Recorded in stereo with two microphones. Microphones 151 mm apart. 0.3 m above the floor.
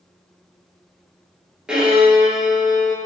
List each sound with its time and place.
1.7 s a violin: 5° right (ahead or behind), 0.8 m